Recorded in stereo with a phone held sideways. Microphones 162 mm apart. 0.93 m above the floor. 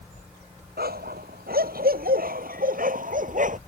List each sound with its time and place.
0.8 s a dog barking: 75° right (ahead or behind); by 3.6 s 55° right (ahead or behind)